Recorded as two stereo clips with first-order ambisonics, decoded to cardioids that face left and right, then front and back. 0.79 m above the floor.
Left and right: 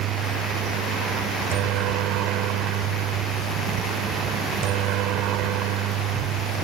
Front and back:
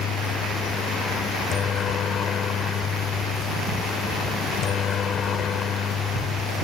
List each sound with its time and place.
0.0 s a helicopter: 55° right